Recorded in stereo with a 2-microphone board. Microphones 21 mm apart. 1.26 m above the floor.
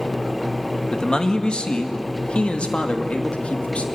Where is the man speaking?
40° left (ahead or behind), 1.8 m; by 3.8 s 80° left, 2.5 m.